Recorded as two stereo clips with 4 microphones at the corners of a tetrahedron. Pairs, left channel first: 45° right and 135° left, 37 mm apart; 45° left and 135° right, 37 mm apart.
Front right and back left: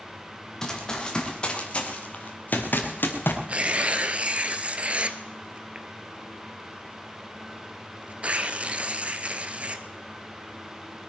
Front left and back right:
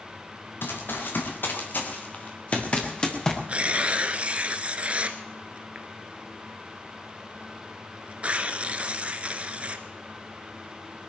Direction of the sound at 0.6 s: 30° left.